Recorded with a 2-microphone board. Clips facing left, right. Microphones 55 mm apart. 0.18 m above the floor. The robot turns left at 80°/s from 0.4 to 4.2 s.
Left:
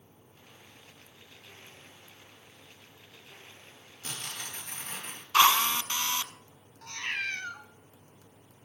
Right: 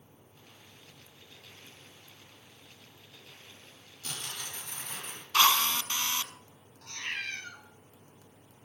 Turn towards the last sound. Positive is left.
turn(degrees=35)  # may be behind; listen again after turning